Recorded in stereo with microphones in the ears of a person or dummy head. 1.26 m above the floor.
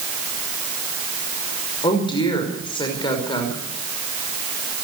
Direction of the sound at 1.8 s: 25° left (ahead or behind).